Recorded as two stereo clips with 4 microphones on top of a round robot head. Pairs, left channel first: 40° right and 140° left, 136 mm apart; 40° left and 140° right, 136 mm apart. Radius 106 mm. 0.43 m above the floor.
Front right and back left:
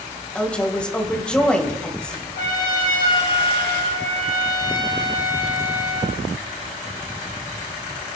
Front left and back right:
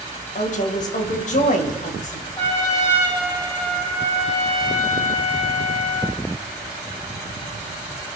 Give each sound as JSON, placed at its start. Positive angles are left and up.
{"t": 0.3, "sound": "a woman speaking", "azimuth_deg": 40, "distance_m": 2.5}
{"t": 2.4, "sound": "a trumpet", "azimuth_deg": -30, "distance_m": 4.0}